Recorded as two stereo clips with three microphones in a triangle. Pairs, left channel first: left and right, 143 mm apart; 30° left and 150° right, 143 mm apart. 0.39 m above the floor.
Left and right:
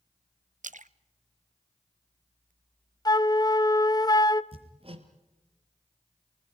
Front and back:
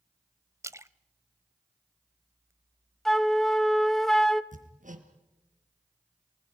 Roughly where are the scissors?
No scissors in this recording.